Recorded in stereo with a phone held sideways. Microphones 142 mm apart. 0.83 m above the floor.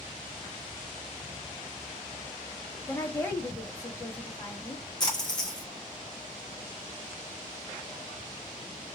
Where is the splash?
30° left (ahead or behind), 1.1 m.